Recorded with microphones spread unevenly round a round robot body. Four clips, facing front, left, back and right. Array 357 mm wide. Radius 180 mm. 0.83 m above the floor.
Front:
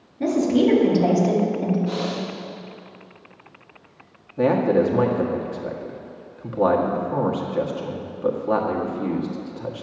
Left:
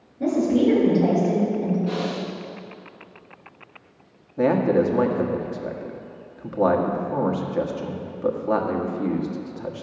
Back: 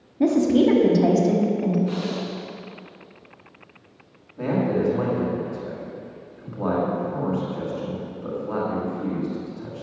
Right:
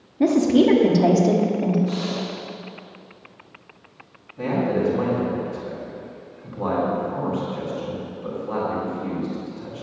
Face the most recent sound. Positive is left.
turn(degrees=45)